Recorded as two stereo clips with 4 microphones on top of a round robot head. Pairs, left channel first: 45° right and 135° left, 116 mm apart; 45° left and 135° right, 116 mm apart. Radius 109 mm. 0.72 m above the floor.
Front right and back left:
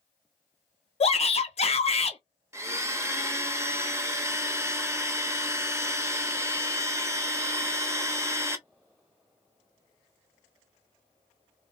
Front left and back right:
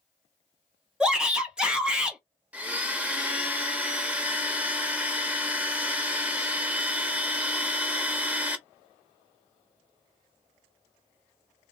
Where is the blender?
165° left, 0.9 m.